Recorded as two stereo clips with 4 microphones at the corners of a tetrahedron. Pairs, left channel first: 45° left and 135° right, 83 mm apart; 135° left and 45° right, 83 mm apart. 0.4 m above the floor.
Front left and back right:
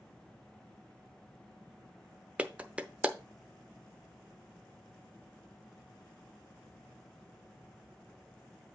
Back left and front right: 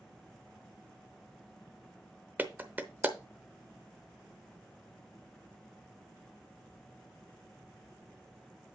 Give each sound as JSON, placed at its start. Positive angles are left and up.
{"t": 2.4, "sound": "a clap", "azimuth_deg": -75, "distance_m": 0.7}